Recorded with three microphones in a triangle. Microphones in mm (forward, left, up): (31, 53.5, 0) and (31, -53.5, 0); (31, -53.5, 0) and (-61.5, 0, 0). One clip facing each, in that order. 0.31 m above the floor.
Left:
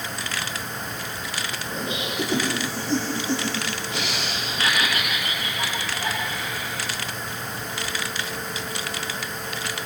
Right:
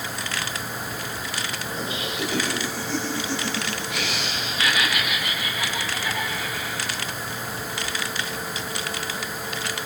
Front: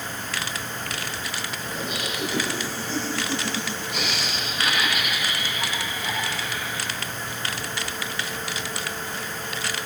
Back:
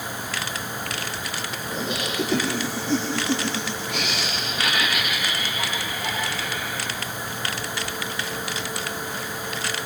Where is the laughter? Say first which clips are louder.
Left 3 dB, back 5 dB; 155° left, 6.5 m; by 6.9 s 130° left, 8 m.